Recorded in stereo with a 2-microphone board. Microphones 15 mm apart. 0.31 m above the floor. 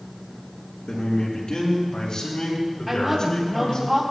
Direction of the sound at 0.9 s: 70° left (ahead or behind).